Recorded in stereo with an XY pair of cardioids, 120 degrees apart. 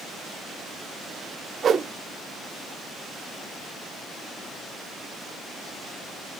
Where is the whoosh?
40° right, 0.7 m.